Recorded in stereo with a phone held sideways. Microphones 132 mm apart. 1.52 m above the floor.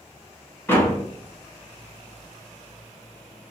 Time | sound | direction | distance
0.7 | a door slam | 15° left (ahead or behind) | 0.8 m